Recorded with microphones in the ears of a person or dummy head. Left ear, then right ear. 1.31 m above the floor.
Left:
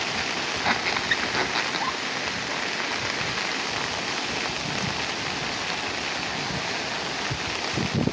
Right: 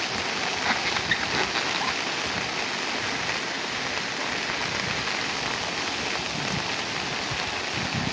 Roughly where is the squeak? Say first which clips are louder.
Left 2 dB; centre.